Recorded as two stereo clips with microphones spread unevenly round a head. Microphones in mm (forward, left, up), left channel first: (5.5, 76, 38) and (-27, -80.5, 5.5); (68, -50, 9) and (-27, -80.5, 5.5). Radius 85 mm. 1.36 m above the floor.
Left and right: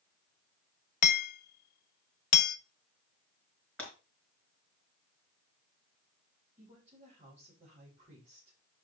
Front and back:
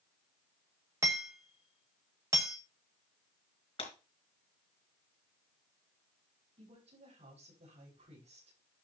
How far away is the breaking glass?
About 4.5 m.